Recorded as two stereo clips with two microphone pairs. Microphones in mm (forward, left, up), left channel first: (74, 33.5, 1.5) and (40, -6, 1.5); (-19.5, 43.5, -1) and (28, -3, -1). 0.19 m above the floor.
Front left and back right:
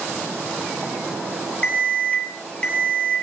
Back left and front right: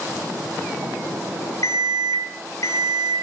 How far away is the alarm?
About 7 m.